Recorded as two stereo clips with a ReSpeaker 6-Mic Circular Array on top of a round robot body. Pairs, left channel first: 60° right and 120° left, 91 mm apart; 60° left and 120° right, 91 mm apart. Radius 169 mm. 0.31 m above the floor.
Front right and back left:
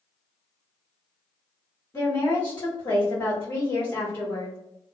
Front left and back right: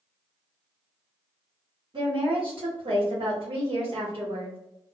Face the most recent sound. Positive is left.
turn(degrees=-115)